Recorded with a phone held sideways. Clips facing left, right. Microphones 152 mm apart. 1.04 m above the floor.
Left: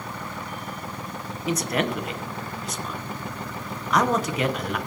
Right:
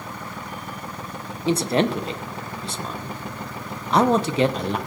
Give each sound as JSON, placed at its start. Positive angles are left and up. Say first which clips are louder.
{"t": 1.5, "sound": "a man speaking", "louder": "right 5 dB", "side_deg": -30, "distance_m": 0.7}